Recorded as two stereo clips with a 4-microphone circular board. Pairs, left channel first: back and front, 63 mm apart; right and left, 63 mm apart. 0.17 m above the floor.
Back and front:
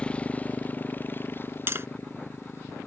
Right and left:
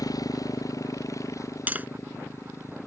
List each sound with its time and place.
0.0 s a motorcycle: 110° right; by 2.9 s 135° right
1.7 s tapping: 35° left